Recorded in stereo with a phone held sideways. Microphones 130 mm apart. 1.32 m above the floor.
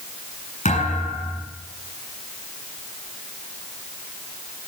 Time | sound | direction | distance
0.7 | a thud | 80° left | 8 m